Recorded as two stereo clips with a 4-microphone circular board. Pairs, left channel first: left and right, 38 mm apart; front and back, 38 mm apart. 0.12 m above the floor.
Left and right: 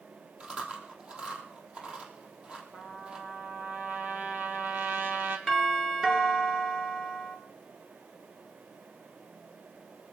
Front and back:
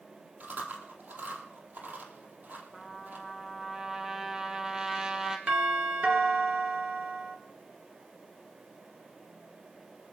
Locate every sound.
0.4 s chewing: 145° right, 3 m
2.7 s a trumpet: 110° right, 2 m
5.5 s a doorbell: 155° right, 2.5 m